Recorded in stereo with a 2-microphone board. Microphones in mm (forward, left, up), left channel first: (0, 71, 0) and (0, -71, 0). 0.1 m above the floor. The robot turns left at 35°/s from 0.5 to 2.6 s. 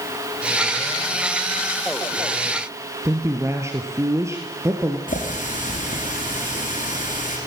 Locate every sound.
3.0 s a woman speaking: 20° right (ahead or behind), 1.9 m
5.1 s a running tap: 80° left, 6.5 m